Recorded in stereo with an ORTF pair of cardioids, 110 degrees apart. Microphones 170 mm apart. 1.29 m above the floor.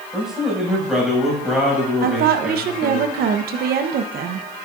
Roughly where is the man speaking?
Ahead.